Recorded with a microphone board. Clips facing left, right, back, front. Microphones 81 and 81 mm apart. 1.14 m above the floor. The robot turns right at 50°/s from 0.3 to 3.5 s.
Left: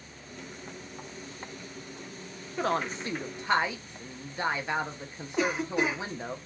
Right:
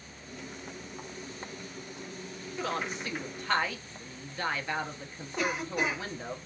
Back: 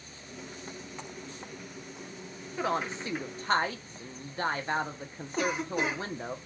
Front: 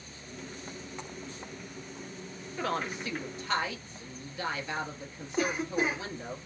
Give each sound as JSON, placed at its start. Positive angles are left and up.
{"t": 2.6, "sound": "a woman speaking", "azimuth_deg": 110, "distance_m": 0.5}
{"t": 5.4, "sound": "a cough", "azimuth_deg": 170, "distance_m": 1.5}